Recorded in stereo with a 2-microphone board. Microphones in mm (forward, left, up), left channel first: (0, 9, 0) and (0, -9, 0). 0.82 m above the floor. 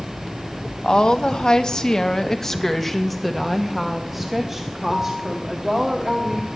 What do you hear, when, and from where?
0.8 s a woman speaking: 50° left (ahead or behind), 1.2 m; by 6.6 s 35° right (ahead or behind), 2.5 m